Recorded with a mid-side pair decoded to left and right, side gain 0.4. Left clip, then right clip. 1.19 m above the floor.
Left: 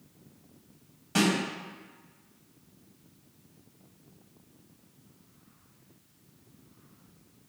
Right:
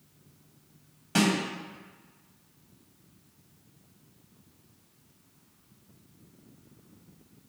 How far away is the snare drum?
About 1.5 m.